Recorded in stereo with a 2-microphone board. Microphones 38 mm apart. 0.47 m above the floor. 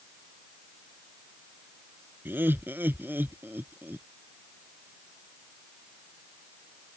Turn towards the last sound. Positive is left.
turn(degrees=-60)  # may be behind; listen again after turning